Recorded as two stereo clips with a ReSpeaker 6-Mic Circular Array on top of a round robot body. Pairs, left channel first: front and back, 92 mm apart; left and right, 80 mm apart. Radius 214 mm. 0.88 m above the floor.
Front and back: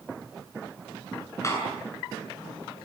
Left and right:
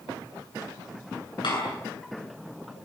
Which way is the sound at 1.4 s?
60° left.